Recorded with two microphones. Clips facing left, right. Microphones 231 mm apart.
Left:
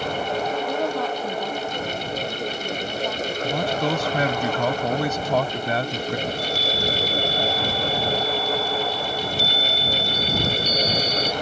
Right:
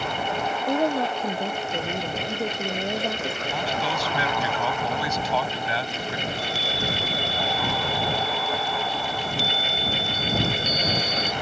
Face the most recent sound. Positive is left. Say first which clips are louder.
# left 4 dB
turn(degrees=40)  # may be behind; listen again after turning